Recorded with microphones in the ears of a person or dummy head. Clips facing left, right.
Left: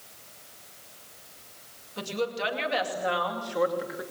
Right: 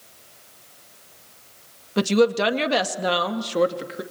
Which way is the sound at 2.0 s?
75° right (ahead or behind).